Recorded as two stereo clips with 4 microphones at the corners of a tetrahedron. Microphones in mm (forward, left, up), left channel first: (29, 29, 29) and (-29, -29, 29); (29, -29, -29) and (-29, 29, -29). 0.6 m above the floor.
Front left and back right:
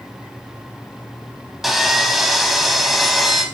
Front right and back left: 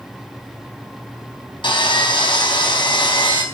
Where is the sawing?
45° right, 4 m.